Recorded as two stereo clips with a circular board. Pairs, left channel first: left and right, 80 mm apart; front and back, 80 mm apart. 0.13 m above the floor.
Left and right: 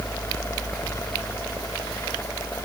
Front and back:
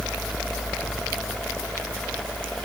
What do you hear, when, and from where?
Only background noise.